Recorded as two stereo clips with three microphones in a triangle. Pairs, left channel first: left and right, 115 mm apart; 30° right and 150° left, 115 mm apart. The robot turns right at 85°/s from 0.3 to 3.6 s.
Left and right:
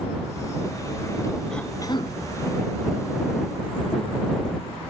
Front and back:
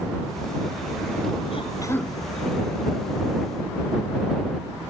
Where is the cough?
5° left; by 2.1 s 55° left.